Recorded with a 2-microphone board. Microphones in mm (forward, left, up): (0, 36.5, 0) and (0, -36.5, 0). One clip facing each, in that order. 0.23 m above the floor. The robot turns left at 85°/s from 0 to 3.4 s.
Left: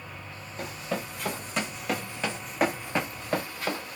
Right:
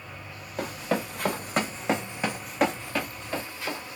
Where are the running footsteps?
80° right, 1.3 m; by 4.0 s 40° left (ahead or behind), 1.5 m.